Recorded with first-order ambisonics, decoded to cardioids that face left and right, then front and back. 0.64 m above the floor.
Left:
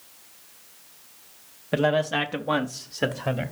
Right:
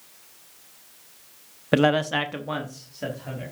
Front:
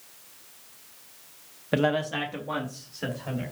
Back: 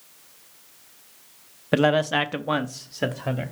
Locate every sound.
1.7 s a man speaking: 125° right, 0.6 m; by 3.5 s 135° left, 1.1 m